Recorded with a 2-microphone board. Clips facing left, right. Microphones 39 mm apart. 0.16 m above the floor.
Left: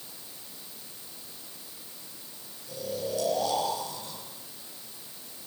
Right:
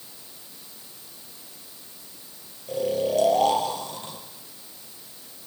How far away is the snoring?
About 4 m.